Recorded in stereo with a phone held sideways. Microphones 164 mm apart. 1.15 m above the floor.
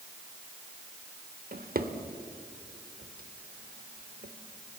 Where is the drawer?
65° right (ahead or behind), 1.4 m.